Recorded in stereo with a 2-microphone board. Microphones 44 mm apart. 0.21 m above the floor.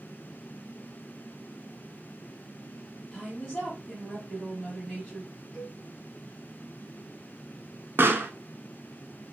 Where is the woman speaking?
25° left (ahead or behind), 2.0 m.